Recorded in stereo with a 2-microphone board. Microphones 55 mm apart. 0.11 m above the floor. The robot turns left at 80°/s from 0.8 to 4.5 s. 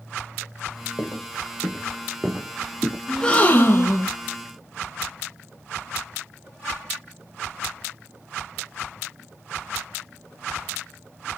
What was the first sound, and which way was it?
Footsteps, 55° left (ahead or behind).